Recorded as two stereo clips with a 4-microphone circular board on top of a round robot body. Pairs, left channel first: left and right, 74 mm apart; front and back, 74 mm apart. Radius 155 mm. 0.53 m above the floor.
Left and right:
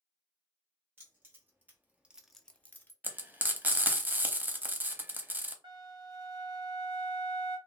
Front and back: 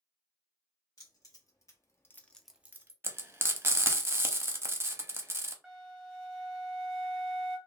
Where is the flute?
85° right, 1.0 m.